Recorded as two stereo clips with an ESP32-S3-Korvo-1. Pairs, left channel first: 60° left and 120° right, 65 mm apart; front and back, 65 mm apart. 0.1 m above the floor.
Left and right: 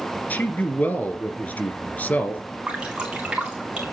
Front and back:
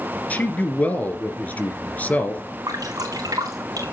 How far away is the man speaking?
About 1.9 m.